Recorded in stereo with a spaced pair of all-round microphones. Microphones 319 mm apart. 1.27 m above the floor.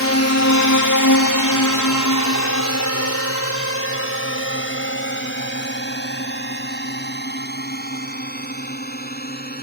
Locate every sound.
0.0 s a drone: 45° left (ahead or behind); by 9.6 s 30° left (ahead or behind)